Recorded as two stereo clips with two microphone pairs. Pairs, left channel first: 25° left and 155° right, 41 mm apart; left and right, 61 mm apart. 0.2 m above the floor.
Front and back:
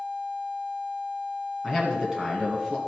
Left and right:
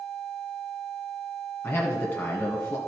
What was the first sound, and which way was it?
A man speaking, 130° left.